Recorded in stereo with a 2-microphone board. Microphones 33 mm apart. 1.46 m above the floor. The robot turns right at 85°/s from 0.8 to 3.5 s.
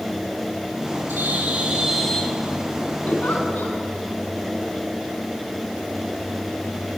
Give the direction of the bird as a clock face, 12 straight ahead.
3 o'clock.